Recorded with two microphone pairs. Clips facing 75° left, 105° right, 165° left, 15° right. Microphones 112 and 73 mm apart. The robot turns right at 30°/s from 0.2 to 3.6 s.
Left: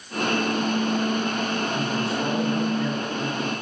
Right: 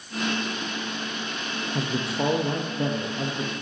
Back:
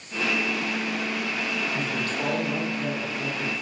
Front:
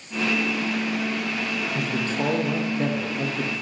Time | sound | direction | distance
1.8 | a man speaking | 90° right | 1.2 m